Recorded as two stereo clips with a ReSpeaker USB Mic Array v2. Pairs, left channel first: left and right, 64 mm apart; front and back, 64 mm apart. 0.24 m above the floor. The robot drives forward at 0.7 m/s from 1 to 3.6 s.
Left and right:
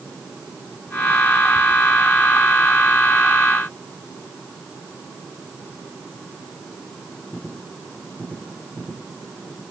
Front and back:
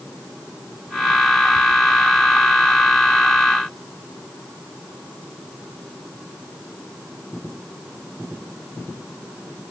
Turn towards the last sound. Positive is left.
No sound to turn to.